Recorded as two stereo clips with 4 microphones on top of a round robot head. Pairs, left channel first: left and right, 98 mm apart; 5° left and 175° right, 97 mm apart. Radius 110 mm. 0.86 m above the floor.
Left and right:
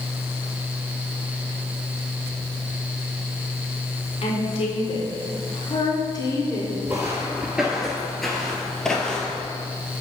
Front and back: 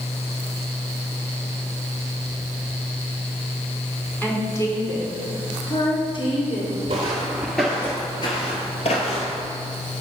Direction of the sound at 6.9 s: 165° right.